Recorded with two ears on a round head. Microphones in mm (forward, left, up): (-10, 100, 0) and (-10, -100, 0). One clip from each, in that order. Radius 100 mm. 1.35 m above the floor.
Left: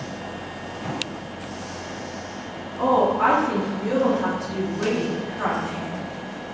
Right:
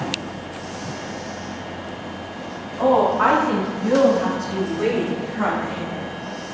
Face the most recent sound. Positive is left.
turn(degrees=-85)